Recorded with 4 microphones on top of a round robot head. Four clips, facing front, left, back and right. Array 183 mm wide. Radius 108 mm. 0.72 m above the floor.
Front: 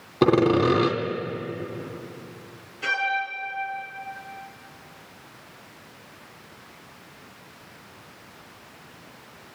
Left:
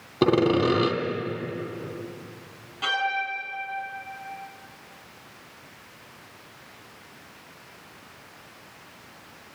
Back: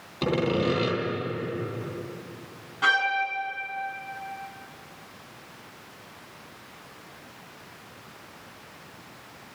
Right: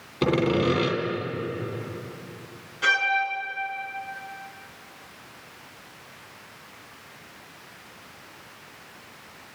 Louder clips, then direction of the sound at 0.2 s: Left 2 dB, front 7 dB; 35° left.